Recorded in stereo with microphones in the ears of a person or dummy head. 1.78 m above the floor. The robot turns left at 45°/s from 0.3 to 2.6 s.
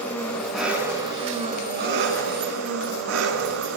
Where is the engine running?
10° left, 9.5 m; by 3.8 s 95° right, 9.5 m.